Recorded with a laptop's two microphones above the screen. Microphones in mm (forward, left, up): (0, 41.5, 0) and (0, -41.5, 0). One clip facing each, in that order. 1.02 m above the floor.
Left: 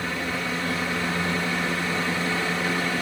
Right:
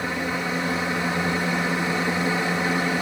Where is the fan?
25° right (ahead or behind), 2 m.